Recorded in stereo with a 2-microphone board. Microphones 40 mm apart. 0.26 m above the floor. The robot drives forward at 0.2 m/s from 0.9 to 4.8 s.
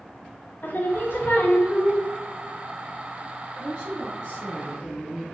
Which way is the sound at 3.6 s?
30° right (ahead or behind).